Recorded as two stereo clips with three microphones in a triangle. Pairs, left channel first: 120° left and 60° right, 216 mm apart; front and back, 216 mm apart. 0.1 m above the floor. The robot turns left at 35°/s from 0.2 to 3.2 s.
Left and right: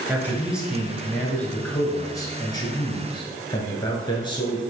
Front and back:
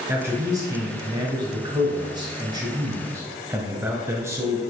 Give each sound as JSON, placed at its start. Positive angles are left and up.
{"t": 0.1, "sound": "a man speaking", "azimuth_deg": -125, "distance_m": 1.1}